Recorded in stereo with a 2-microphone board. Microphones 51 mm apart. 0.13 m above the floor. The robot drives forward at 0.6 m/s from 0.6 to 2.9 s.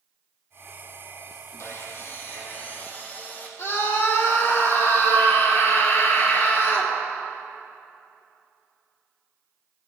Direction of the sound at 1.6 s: 55° left (ahead or behind).